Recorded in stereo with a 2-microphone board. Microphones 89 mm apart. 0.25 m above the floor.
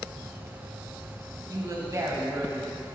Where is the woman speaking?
45° right (ahead or behind), 2.5 m; by 2.7 s 15° right (ahead or behind), 1.7 m.